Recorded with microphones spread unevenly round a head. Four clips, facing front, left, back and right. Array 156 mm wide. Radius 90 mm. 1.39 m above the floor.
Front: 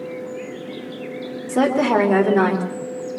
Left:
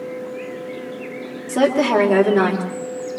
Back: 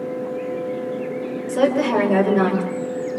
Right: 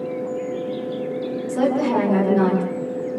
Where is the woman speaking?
40° left, 4 m; by 2.6 s 50° left, 5 m.